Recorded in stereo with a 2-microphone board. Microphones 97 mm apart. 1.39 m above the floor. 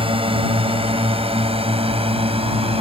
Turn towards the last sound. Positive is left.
turn(degrees=-85)